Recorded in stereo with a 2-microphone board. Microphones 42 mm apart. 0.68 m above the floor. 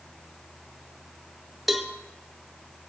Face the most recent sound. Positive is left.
turn(degrees=0)  # may be behind; listen again after turning